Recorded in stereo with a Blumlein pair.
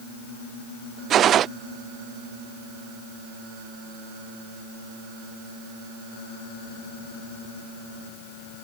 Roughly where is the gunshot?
Ahead right.